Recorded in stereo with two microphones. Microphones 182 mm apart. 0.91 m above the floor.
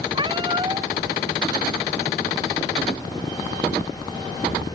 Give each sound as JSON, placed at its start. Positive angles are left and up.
{"t": 0.1, "sound": "a cat meowing", "side_deg": -25}